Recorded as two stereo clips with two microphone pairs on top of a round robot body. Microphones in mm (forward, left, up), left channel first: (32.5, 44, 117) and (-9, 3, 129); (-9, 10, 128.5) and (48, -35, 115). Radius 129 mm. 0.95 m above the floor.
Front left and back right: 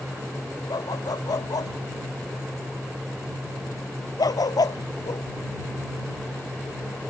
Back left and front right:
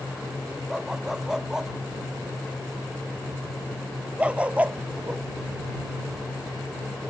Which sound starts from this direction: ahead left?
A dog barking, at 0.7 s.